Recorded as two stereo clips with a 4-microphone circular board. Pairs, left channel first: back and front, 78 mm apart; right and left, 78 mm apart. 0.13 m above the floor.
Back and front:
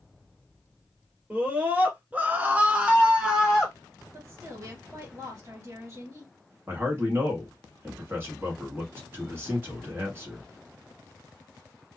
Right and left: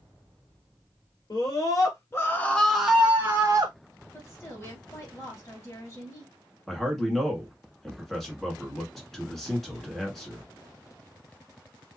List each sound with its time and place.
1.3 s a scream: 65° right, 1.8 m; by 3.8 s 85° left, 1.3 m
4.1 s a woman speaking: 40° right, 2.5 m
6.7 s a man speaking: 5° right, 1.6 m